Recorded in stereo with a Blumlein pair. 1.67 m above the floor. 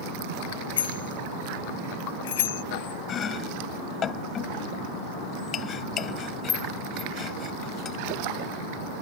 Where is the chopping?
25° left.